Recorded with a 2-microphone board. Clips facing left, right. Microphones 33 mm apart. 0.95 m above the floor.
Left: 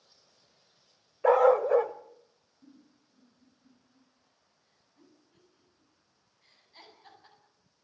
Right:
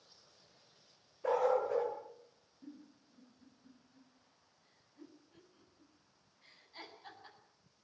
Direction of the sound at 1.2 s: 70° left (ahead or behind).